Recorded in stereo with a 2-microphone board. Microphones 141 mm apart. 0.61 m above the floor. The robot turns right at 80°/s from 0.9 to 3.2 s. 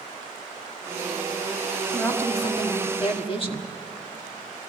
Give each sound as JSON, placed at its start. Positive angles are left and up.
{"t": 1.9, "sound": "a woman speaking", "azimuth_deg": 5, "distance_m": 1.5}